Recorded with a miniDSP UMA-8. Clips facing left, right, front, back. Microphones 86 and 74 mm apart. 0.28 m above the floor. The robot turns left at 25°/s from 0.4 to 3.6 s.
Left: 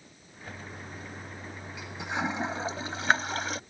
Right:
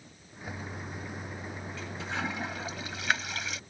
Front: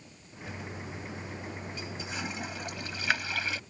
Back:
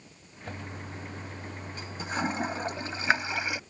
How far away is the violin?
No violin in this recording.